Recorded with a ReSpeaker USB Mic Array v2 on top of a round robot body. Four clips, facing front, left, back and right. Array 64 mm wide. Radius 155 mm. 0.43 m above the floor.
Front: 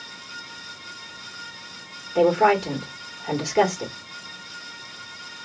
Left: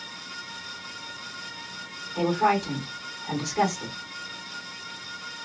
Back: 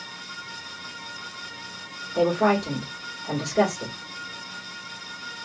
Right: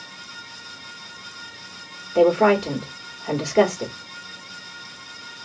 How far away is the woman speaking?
About 1.6 m.